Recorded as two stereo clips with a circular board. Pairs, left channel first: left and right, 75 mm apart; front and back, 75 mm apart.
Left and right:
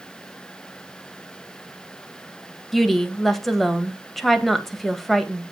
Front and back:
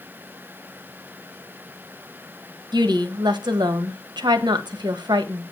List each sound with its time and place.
2.7 s a woman speaking: 175° left, 1.7 m